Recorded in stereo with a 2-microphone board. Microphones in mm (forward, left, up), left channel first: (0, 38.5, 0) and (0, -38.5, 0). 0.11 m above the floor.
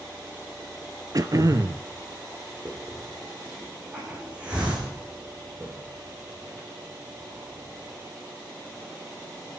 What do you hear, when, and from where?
1.1 s throat clearing: 50° right (ahead or behind), 0.9 m
2.6 s a hiss: 15° right (ahead or behind), 4.5 m